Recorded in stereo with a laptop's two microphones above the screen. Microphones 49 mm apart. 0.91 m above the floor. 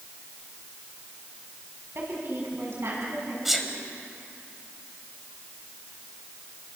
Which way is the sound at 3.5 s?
5° right (ahead or behind).